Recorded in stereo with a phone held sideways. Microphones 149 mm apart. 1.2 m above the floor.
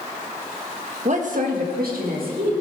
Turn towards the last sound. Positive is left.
turn(degrees=-85)